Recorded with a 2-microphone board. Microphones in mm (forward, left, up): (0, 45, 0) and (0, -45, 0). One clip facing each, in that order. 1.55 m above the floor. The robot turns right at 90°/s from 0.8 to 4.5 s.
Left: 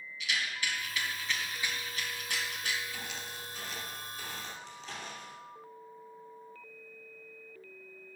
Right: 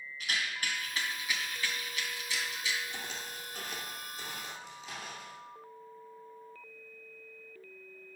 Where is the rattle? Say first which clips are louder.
Even; 45° right (ahead or behind), 2 m; by 2.8 s 45° left (ahead or behind), 2 m.